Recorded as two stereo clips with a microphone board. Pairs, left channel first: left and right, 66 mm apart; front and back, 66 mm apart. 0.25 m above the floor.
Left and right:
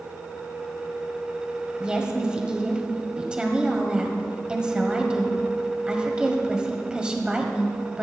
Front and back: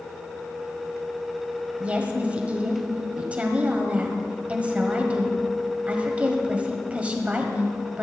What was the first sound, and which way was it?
A woman speaking, 145° right.